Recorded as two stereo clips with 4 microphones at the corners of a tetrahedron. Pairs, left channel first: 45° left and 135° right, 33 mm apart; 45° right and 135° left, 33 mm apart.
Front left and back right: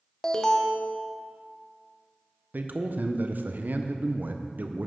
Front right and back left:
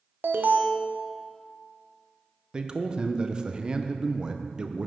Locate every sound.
0.2 s an alarm: 120° left, 0.8 m
2.5 s a man speaking: 160° right, 0.7 m